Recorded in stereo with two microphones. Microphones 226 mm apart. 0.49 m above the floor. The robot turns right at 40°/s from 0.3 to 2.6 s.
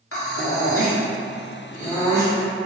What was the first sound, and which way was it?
Breathing, 85° left.